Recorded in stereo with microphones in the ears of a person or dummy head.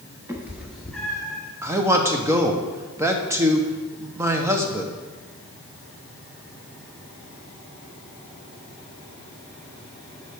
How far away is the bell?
No bell in this recording.